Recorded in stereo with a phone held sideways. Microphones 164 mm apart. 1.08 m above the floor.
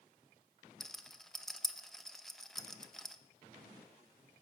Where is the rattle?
Centre (ahead or behind), 0.5 m.